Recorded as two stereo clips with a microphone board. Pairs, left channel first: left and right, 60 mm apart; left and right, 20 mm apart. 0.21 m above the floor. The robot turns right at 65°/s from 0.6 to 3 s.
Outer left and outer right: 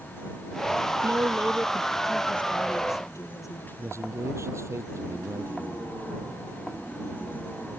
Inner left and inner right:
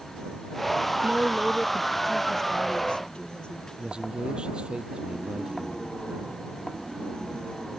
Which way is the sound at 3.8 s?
50° right (ahead or behind).